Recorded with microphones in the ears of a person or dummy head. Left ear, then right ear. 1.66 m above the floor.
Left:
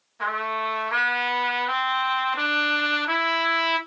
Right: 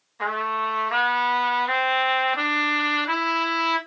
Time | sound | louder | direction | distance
0.2 | a trumpet | right 1 dB | 10° right (ahead or behind) | 1.3 m